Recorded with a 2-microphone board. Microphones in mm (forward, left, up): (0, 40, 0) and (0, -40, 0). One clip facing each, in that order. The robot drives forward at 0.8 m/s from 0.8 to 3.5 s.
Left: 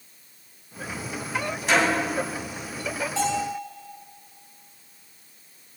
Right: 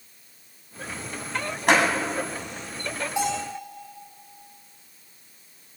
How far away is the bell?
About 3.5 m.